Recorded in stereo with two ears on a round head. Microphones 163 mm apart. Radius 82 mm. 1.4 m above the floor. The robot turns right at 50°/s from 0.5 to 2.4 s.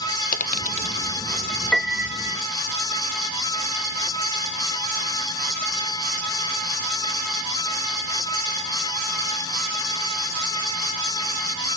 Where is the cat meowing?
I don't hear a cat meowing.